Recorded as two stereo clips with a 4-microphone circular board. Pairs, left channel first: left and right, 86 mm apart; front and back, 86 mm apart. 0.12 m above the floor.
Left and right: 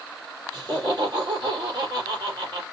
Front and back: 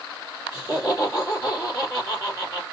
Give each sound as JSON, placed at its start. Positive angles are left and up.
{"t": 0.5, "sound": "laughter", "azimuth_deg": -55, "distance_m": 3.0}